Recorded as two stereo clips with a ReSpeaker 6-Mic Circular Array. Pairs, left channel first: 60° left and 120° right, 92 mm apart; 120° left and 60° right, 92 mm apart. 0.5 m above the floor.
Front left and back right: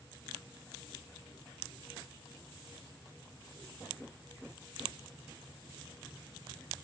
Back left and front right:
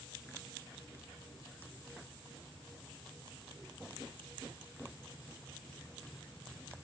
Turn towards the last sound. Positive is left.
No sound to turn to.